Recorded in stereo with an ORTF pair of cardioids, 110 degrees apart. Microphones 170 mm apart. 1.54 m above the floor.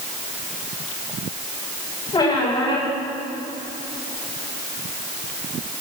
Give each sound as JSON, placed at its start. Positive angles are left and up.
{"t": 2.1, "sound": "a squeak", "azimuth_deg": 25, "distance_m": 3.5}